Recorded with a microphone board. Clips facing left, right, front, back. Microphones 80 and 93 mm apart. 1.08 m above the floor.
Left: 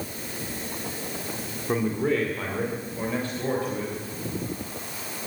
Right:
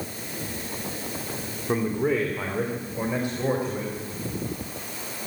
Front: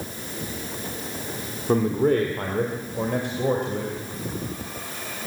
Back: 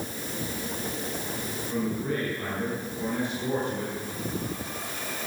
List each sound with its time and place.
1.7 s a man speaking: 5° right, 2.5 m; by 3.9 s 20° right, 4.5 m